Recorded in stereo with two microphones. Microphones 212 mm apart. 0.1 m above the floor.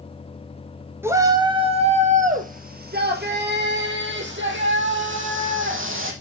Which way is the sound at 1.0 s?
10° right (ahead or behind).